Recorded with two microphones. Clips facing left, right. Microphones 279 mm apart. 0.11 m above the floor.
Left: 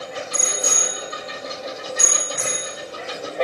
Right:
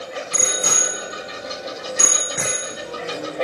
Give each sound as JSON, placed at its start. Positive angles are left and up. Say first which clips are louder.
{"t": 0.3, "sound": "a bicycle bell", "louder": "right 3 dB", "side_deg": -70, "distance_m": 4.5}